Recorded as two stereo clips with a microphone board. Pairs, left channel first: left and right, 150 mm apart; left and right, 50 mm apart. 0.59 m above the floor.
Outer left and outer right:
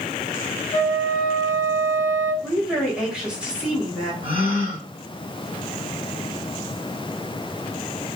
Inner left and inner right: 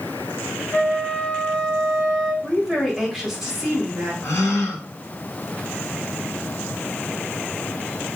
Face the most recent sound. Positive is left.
turn(degrees=75)  # may be behind; listen again after turning